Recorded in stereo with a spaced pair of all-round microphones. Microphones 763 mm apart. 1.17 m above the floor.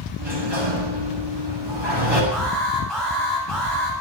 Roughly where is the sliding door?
Right.